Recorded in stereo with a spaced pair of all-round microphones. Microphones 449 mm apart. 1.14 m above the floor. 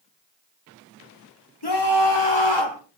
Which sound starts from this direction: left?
A scream, at 1.6 s.